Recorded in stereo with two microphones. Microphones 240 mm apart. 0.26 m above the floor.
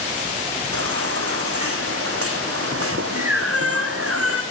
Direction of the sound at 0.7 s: 70° right (ahead or behind).